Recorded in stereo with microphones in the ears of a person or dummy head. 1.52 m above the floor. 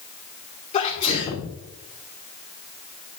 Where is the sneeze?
35° left (ahead or behind), 2 m.